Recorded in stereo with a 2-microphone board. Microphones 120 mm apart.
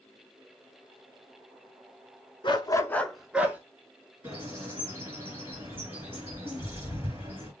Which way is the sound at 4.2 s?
20° right (ahead or behind).